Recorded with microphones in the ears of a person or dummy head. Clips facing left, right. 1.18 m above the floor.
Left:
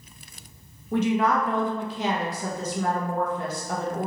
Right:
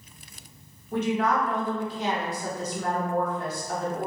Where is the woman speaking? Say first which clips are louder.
Left 2 dB; 55° left (ahead or behind), 0.9 m.